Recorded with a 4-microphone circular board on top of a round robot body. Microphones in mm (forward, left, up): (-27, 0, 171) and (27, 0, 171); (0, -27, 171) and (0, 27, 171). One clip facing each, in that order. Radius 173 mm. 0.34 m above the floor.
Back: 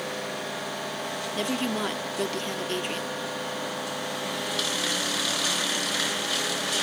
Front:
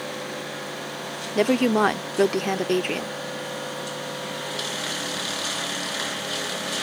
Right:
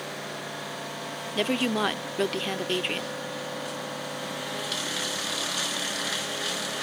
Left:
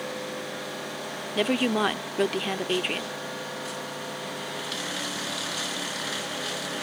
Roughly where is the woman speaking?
Ahead.